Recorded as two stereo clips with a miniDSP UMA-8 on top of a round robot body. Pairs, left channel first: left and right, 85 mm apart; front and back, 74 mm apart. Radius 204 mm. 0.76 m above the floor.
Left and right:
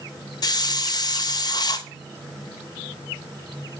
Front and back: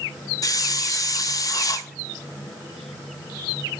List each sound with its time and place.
0.4 s a hiss: 45° left, 0.7 m